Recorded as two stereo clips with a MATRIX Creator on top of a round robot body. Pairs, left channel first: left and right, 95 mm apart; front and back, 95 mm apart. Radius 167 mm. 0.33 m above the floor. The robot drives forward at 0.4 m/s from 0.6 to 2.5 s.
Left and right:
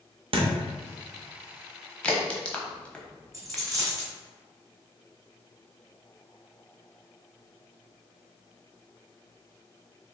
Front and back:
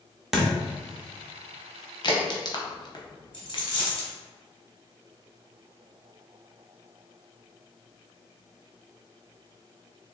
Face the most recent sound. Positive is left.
turn(degrees=-35)